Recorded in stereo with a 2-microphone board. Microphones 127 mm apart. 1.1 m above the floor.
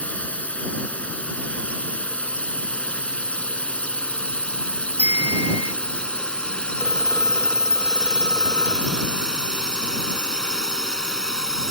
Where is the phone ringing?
30° left (ahead or behind).